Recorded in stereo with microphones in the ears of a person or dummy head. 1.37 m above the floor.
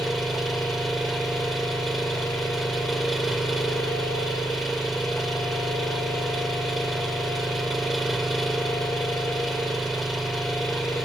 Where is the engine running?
Centre (ahead or behind).